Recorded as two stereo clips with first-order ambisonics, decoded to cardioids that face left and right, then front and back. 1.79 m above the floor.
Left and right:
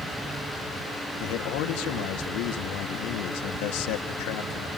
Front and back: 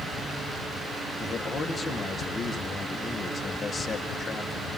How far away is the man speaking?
About 1.9 m.